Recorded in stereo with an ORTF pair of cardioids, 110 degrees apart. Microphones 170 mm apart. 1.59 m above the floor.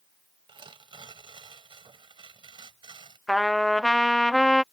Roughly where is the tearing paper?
Ahead right.